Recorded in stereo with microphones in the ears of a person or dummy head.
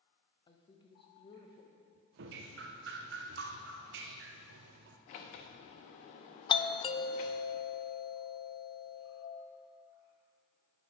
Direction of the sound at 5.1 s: 50° left (ahead or behind).